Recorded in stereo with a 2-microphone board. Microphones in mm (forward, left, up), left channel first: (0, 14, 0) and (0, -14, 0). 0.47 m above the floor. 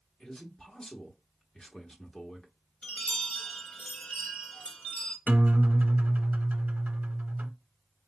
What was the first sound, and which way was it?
A man speaking, 25° left (ahead or behind).